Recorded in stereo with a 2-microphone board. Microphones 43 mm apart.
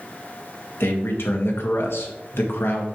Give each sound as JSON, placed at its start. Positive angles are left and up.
{"t": 0.8, "sound": "a man speaking", "side_deg": 75, "distance_m": 1.9}